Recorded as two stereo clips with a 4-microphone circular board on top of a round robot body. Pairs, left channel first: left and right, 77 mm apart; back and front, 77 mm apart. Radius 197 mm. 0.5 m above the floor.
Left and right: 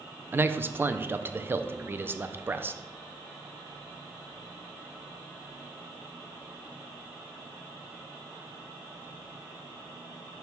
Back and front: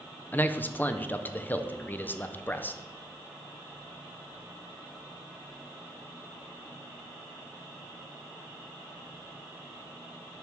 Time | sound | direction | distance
0.3 | a man speaking | 130° right | 0.7 m